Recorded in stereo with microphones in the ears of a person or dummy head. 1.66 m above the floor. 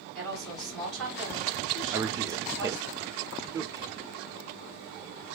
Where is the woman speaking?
Centre (ahead or behind), 2 m.